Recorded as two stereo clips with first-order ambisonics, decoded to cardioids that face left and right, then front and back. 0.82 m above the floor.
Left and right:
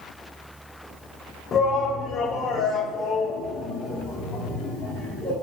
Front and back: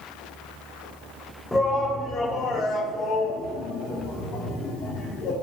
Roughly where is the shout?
Left.